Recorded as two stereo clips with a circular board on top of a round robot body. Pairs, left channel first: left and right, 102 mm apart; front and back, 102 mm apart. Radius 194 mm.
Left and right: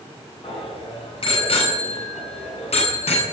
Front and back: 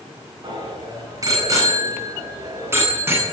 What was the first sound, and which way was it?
A bicycle bell, 125° left.